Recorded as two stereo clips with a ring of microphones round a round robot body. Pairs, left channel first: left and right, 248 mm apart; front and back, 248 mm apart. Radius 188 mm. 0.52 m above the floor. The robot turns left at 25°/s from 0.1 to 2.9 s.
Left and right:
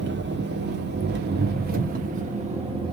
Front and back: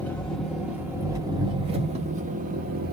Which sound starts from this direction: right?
An engine running, at 0.0 s.